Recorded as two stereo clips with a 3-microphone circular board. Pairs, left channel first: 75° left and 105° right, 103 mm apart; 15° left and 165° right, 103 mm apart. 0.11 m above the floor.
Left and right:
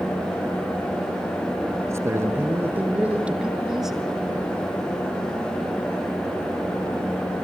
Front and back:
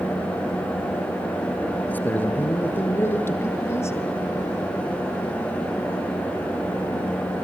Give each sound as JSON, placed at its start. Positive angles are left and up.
{"t": 1.9, "sound": "a man speaking", "azimuth_deg": -50, "distance_m": 2.5}